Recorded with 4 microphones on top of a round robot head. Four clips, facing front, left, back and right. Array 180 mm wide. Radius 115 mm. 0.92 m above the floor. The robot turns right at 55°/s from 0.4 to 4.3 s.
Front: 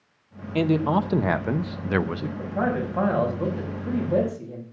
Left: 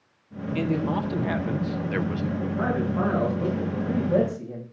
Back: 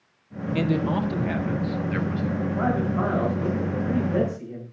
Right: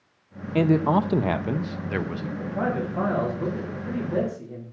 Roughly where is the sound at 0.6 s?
Right.